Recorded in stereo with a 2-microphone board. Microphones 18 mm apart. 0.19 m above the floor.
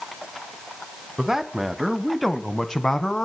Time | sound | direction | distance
1.2 | a man speaking | 30° right (ahead or behind) | 1.7 m